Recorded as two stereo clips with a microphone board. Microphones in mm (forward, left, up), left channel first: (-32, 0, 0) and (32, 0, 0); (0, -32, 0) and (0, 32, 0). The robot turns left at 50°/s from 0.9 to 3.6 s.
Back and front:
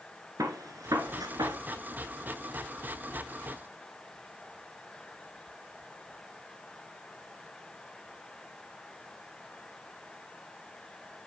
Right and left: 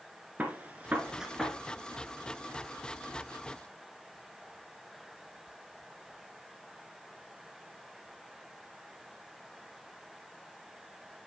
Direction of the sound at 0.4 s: 25° left.